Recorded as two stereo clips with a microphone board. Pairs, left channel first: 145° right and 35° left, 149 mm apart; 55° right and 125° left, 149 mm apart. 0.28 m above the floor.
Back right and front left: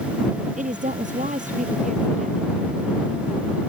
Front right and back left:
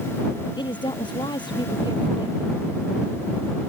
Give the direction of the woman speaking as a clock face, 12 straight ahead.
12 o'clock.